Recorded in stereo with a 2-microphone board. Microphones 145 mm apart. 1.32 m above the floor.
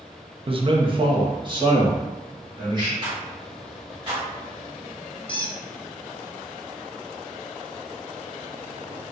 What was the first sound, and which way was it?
A man speaking, 40° right (ahead or behind).